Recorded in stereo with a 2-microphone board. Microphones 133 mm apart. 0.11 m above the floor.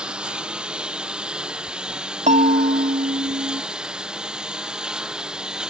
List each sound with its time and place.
0.0 s a lawn mower: 5° right (ahead or behind)
2.3 s a bell: 70° right (ahead or behind)